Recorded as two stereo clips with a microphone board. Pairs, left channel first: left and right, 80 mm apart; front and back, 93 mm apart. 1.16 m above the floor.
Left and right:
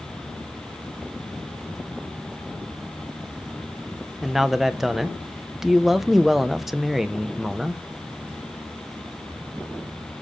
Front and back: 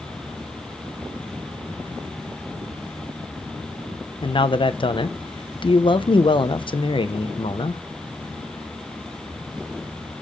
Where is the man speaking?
5° right, 0.6 m.